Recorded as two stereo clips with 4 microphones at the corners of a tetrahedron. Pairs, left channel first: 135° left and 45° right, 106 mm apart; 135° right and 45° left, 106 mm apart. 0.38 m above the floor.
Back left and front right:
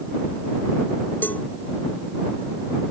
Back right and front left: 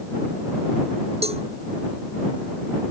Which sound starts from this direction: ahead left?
A cowbell, at 1.2 s.